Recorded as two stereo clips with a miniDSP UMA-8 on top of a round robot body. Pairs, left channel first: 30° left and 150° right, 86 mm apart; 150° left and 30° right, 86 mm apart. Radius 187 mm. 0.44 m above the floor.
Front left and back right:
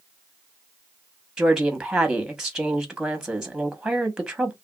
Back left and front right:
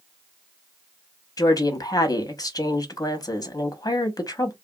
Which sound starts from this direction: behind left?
A woman speaking, at 1.4 s.